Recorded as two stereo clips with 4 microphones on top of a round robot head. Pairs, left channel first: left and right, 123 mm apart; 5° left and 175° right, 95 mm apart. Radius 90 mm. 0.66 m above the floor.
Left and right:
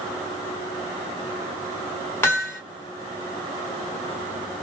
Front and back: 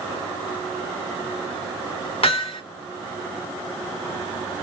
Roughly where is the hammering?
Ahead.